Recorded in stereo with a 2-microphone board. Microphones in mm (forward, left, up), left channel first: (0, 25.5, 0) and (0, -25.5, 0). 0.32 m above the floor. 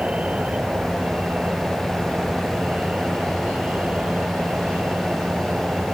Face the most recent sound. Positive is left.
turn(degrees=-30)  # may be behind; listen again after turning